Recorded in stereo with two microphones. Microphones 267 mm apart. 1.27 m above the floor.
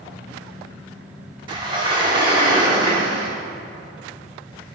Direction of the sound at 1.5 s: 15° right (ahead or behind).